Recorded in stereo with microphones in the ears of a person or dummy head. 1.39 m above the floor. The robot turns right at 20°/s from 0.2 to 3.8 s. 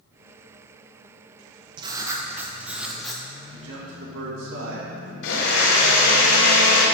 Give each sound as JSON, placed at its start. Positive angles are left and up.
{"t": 1.8, "sound": "writing", "side_deg": -25, "distance_m": 0.9}
{"t": 3.5, "sound": "a man speaking", "side_deg": -70, "distance_m": 2.0}
{"t": 5.2, "sound": "a blender", "side_deg": 75, "distance_m": 1.8}